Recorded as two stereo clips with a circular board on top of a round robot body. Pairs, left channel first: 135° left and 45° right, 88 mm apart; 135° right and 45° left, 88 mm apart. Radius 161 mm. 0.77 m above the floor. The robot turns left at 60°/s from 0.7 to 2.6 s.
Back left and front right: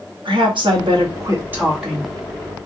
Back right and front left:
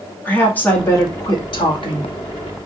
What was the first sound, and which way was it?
A woman speaking, 65° right.